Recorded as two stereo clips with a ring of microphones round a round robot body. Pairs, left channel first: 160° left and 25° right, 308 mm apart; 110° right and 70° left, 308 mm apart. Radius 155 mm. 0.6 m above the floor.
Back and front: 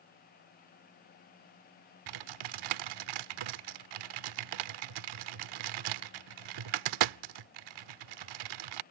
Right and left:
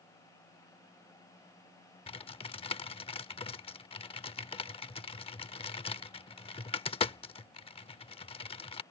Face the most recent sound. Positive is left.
turn(degrees=-40)